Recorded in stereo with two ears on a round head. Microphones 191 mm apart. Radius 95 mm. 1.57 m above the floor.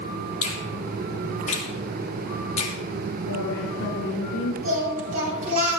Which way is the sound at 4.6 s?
35° right (ahead or behind).